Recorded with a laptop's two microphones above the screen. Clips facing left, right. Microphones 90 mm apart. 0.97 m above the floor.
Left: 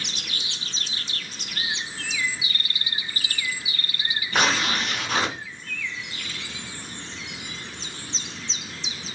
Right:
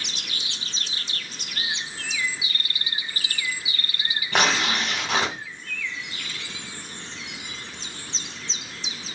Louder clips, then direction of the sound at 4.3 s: Right 1 dB; 70° right (ahead or behind).